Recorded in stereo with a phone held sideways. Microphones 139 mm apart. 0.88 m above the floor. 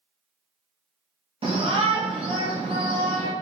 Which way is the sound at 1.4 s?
40° right (ahead or behind).